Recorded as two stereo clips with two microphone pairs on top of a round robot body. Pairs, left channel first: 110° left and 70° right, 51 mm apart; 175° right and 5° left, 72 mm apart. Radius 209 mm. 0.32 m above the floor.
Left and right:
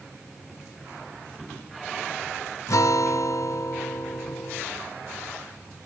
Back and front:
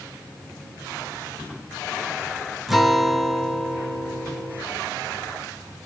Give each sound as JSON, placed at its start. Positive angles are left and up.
{"t": 2.7, "sound": "a guitar", "azimuth_deg": 95, "distance_m": 0.8}